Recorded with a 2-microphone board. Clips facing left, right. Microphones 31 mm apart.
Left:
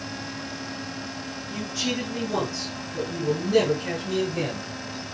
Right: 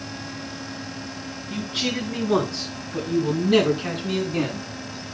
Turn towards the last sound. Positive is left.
turn(degrees=-85)